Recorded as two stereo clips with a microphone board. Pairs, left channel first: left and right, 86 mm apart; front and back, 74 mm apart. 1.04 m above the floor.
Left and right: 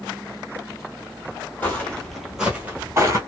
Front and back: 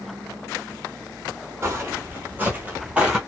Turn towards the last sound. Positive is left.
turn(degrees=-105)